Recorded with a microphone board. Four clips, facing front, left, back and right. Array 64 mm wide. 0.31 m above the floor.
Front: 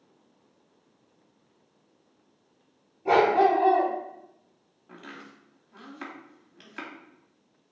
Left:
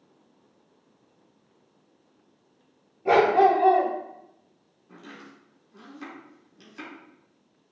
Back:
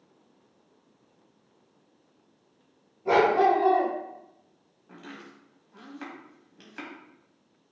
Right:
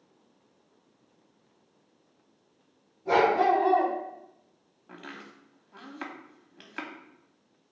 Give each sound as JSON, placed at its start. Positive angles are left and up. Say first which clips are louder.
{"t": 3.0, "sound": "a dog barking", "louder": "left 4 dB, front 1 dB", "azimuth_deg": 75, "distance_m": 1.6}
{"t": 4.9, "sound": "chopping", "louder": "right 1 dB, even", "azimuth_deg": -80, "distance_m": 0.8}